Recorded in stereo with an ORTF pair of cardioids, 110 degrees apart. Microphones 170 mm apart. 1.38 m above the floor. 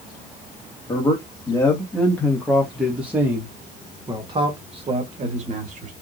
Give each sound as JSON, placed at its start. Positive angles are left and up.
{"t": 0.9, "sound": "a man speaking", "azimuth_deg": 25, "distance_m": 2.0}